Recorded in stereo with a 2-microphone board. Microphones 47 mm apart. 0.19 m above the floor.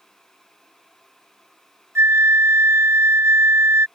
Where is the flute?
75° right (ahead or behind).